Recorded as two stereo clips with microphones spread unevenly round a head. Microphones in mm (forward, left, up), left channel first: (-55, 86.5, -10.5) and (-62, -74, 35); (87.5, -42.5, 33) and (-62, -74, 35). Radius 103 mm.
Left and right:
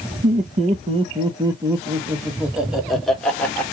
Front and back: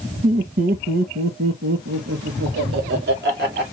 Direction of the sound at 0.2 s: 135° right.